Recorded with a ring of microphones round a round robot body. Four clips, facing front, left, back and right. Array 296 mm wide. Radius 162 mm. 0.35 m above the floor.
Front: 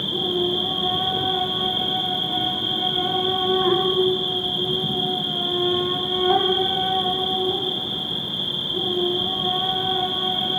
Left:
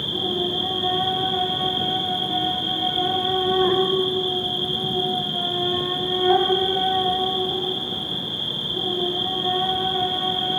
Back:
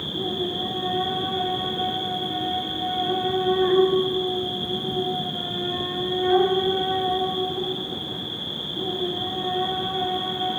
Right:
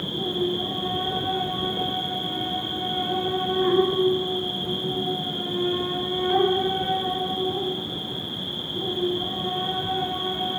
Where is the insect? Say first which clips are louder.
Even, front 4 dB; 35° left, 2 m.